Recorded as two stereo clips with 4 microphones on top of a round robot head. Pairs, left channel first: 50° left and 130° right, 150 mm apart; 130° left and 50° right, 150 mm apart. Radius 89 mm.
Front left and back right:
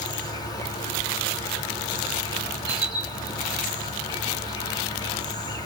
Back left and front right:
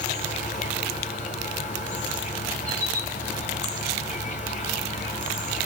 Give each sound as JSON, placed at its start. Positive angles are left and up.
{"t": 0.0, "sound": "an insect", "azimuth_deg": 110, "distance_m": 1.4}